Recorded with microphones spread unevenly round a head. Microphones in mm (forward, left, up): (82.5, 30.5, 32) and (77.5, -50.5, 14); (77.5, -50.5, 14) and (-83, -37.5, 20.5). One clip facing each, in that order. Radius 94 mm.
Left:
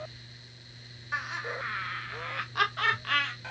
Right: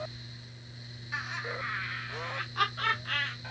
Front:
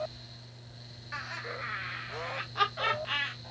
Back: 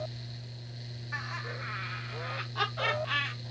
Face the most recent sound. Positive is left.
turn(degrees=95)